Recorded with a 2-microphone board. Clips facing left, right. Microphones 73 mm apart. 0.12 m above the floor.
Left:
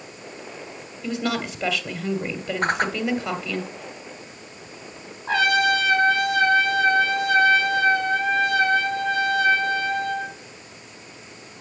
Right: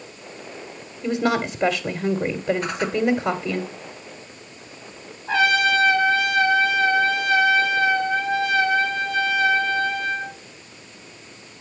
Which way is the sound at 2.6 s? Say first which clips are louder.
Left 3 dB; 50° left (ahead or behind).